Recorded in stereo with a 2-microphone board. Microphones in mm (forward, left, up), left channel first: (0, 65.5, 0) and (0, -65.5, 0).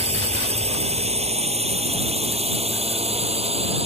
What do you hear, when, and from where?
0.0 s a drone: 50° right (ahead or behind)